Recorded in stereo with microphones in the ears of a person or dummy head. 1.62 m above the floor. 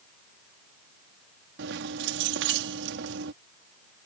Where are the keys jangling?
75° right (ahead or behind).